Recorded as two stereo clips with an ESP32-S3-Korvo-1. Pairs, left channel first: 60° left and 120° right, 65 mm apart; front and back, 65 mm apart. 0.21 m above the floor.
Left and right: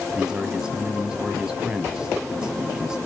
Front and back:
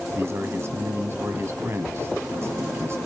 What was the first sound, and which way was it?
A man speaking, 170° left.